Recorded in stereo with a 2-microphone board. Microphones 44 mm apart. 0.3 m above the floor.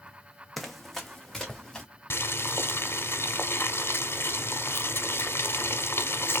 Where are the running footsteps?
Centre (ahead or behind), 1.0 m; by 1.9 s 5° left (ahead or behind), 2 m.